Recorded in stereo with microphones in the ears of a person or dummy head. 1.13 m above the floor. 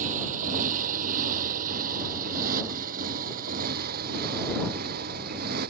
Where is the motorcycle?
40° right (ahead or behind); by 5.7 s 50° right (ahead or behind).